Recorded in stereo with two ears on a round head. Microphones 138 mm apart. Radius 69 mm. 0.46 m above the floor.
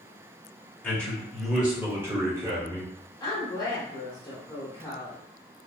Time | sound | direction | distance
0.8 | a man speaking | 10° left (ahead or behind) | 1.3 m
3.2 | a woman speaking | 25° left (ahead or behind) | 1.2 m